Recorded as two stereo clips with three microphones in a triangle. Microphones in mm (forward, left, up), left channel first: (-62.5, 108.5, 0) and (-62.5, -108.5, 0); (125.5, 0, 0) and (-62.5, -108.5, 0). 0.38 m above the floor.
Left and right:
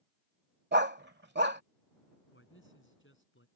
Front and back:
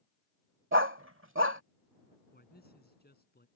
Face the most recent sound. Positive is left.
turn(degrees=70)